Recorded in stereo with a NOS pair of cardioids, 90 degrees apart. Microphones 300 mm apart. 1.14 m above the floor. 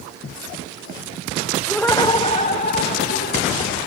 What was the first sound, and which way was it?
Laughter, 5° right.